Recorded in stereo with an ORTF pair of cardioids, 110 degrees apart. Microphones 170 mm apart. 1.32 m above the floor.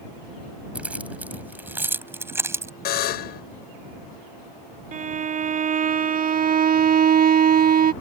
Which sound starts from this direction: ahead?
Keys jangling, at 0.8 s.